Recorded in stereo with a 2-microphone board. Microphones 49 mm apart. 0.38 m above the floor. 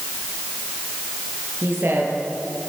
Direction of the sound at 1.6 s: 45° right (ahead or behind).